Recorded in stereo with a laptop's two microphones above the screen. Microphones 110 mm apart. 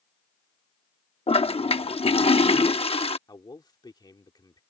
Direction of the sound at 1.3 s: 60° left (ahead or behind).